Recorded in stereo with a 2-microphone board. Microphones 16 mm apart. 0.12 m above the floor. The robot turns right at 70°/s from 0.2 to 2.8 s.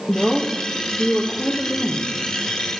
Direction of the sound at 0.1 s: 35° left.